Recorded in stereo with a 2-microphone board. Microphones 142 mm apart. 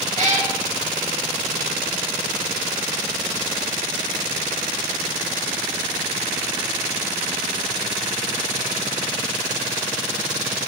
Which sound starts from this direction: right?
A cat meowing, at 0.2 s.